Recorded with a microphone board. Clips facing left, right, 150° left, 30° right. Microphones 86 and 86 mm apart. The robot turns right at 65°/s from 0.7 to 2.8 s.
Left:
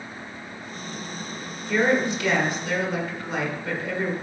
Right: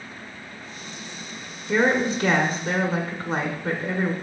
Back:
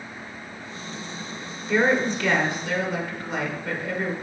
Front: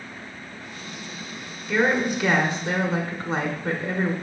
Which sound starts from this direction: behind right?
A woman speaking, at 1.7 s.